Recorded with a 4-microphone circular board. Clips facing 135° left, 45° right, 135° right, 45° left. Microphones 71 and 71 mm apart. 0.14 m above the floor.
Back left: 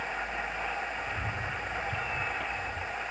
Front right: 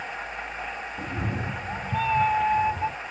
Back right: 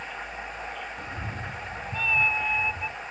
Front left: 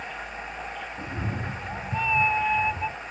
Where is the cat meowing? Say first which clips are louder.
Front right 3 dB, front left 3 dB; 20° right; by 3.0 s 25° right.